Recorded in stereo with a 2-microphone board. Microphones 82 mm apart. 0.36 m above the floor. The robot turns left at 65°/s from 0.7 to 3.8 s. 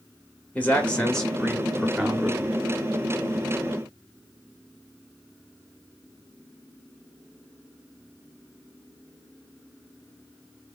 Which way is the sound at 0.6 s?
15° left (ahead or behind).